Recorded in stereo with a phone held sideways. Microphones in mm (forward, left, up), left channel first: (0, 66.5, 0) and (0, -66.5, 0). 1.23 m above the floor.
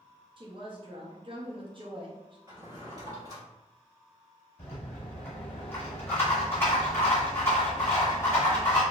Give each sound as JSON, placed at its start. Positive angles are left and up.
{"t": 0.4, "sound": "a woman speaking", "side_deg": -40, "distance_m": 0.8}
{"t": 2.5, "sound": "a drawer", "side_deg": -30, "distance_m": 1.3}
{"t": 4.6, "sound": "a rattle", "side_deg": 20, "distance_m": 1.7}